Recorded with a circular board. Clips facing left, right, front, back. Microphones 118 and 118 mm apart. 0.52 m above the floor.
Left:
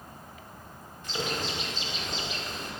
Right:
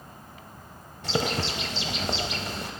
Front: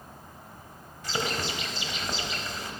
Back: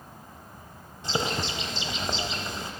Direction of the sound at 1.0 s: 115° right.